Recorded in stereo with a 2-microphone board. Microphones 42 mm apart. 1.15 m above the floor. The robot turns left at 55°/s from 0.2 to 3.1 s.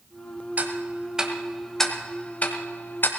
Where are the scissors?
I don't hear scissors.